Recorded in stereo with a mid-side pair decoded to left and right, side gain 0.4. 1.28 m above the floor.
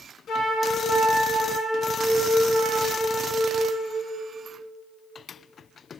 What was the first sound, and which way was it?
A flute, 70° left.